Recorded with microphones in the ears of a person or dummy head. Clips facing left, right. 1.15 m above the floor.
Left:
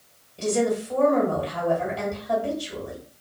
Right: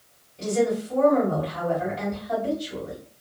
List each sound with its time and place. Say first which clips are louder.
0.4 s a woman speaking: even; 65° left (ahead or behind), 1.6 m